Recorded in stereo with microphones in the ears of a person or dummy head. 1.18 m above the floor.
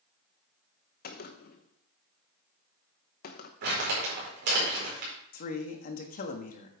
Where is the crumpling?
60° right (ahead or behind), 4.5 m.